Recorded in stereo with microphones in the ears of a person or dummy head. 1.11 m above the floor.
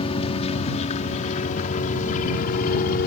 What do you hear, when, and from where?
0.0 s a helicopter: 30° left (ahead or behind); by 3.1 s 50° left (ahead or behind)